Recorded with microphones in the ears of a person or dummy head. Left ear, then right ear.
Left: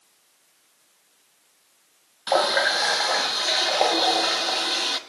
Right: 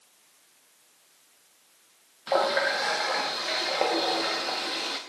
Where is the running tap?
25° left (ahead or behind), 0.8 m.